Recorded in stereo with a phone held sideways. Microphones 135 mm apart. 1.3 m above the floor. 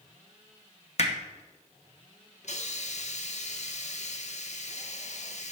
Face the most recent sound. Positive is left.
turn(degrees=55)  # may be behind; listen again after turning